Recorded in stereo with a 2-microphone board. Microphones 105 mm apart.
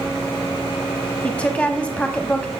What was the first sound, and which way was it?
A woman speaking, 10° left (ahead or behind).